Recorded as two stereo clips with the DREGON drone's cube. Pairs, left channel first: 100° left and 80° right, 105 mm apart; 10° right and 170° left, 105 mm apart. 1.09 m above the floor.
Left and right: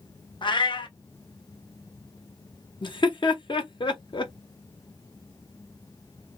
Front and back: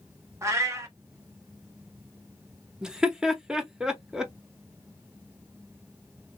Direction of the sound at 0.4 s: 120° left.